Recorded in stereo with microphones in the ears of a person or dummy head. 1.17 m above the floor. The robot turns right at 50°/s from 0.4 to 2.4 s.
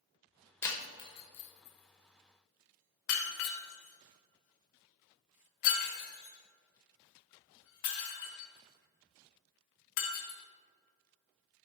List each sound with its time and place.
0.6 s breaking glass: 10° left (ahead or behind), 1.1 m; by 10.4 s 40° left (ahead or behind), 1.1 m